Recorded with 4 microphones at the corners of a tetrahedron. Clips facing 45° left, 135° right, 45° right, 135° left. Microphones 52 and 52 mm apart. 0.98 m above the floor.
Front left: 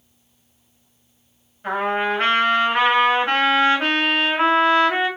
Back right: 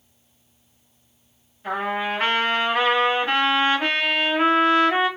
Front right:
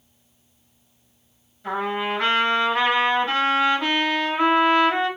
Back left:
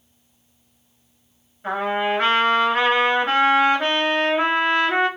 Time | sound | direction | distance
1.6 | a trumpet | 95° left | 3 m